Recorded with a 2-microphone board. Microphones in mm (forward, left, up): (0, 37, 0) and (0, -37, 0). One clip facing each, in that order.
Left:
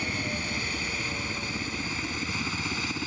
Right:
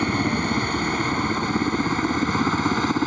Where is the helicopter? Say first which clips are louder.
Right 10 dB; 50° right (ahead or behind).